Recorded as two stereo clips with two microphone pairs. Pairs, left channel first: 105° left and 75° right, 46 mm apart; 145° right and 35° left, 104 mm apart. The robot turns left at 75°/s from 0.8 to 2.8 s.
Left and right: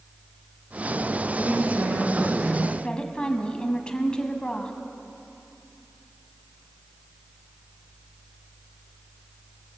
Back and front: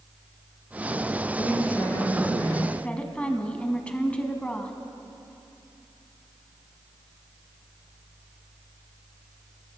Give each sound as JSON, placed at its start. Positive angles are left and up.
{"t": 1.4, "sound": "a woman speaking", "azimuth_deg": -30, "distance_m": 3.0}
{"t": 2.8, "sound": "a woman speaking", "azimuth_deg": 145, "distance_m": 1.1}